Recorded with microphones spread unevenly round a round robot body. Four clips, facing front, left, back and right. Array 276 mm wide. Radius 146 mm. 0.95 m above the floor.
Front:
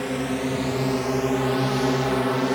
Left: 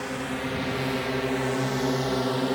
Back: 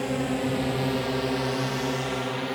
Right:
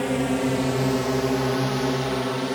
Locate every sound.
0.0 s a drone: 75° right; by 2.6 s 5° left